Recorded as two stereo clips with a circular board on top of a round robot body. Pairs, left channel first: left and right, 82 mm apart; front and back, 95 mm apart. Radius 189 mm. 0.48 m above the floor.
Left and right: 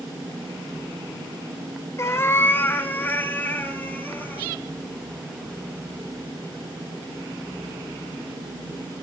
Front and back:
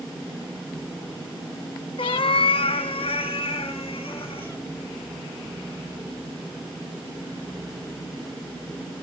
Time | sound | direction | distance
2.0 | a cat meowing | 35° left | 0.7 m